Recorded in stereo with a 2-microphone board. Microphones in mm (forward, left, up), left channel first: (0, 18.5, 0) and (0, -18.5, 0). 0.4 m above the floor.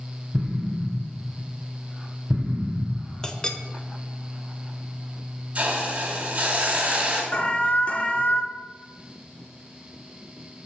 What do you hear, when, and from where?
0.3 s an explosion: 20° right (ahead or behind), 1.3 m
3.2 s a clink: 15° left (ahead or behind), 0.7 m
5.5 s a hiss: 30° right (ahead or behind), 2 m
7.3 s an alarm: 35° left (ahead or behind), 0.9 m